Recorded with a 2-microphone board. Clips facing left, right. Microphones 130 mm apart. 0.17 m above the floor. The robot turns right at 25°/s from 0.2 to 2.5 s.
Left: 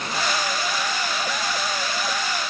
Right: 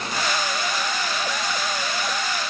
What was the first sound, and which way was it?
Only background noise.